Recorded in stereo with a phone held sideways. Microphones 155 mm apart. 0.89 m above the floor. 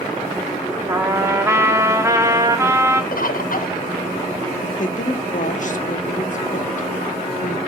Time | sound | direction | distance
0.9 | a trumpet | 20° right (ahead or behind) | 1.2 m
3.1 | a bird | 70° left (ahead or behind) | 0.7 m
4.6 | a woman speaking | 55° left (ahead or behind) | 1.2 m